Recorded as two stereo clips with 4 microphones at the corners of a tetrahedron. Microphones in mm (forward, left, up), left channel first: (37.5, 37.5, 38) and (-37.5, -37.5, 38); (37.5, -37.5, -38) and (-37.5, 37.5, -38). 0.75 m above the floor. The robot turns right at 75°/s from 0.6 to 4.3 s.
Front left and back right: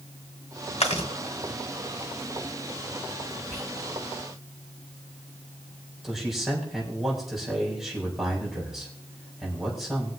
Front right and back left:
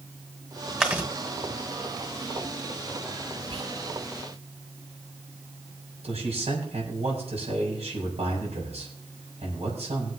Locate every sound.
0.8 s chewing: 50° left, 1.9 m; by 1.1 s 70° left, 1.9 m
3.5 s whispering: 105° left, 4.5 m; by 3.7 s 125° left, 4.5 m
6.0 s a man speaking: 135° left, 5.5 m